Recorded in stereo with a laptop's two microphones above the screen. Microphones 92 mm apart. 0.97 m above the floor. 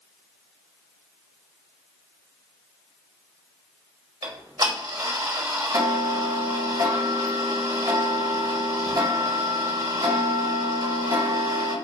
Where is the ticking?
40° right (ahead or behind), 1.2 m.